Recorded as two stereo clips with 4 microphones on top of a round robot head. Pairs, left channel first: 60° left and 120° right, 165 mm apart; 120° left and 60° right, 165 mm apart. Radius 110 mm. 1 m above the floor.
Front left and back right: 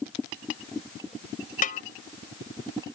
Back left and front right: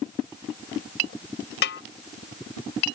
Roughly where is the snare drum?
Left.